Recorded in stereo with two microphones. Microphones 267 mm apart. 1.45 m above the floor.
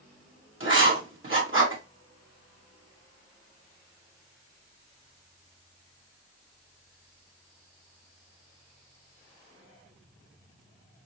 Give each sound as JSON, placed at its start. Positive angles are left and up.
{"t": 0.6, "sound": "writing", "side_deg": -45, "distance_m": 1.6}